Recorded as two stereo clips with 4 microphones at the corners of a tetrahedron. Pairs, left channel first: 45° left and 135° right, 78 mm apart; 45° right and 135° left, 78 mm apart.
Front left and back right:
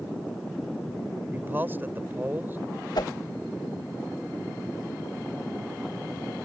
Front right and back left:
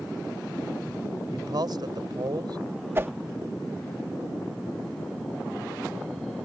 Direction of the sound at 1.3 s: 160° left.